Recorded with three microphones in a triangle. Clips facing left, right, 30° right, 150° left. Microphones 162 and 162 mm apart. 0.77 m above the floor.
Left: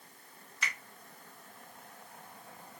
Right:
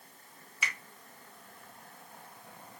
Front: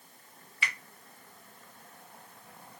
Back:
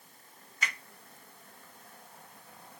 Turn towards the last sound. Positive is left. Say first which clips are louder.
# right 1 dB, even
turn(degrees=-165)